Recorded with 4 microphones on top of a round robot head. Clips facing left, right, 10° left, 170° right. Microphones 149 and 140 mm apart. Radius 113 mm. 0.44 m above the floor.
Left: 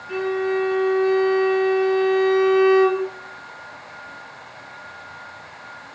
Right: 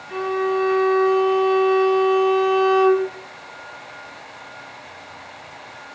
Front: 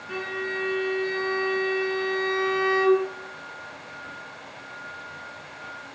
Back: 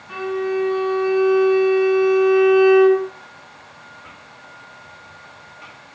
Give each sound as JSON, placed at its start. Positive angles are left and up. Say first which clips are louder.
{"t": 0.1, "sound": "a violin", "louder": "even, back 10 dB", "azimuth_deg": 50, "distance_m": 1.1}